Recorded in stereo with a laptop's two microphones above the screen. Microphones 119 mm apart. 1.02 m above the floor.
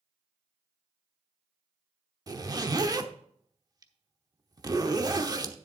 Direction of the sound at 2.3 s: 35° right (ahead or behind).